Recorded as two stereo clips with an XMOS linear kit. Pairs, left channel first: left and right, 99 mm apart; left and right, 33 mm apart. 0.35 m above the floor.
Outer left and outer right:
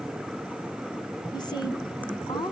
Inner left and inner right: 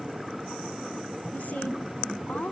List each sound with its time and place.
1.3 s a woman speaking: 50° left (ahead or behind), 2.5 m